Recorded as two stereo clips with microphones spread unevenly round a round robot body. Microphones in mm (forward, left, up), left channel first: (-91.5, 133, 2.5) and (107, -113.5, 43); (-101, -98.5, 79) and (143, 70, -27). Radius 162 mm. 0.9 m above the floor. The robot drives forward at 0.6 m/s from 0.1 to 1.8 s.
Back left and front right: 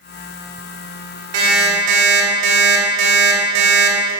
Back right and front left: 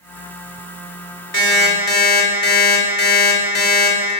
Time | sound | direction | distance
1.3 | an alarm clock | 95° right | 1.8 m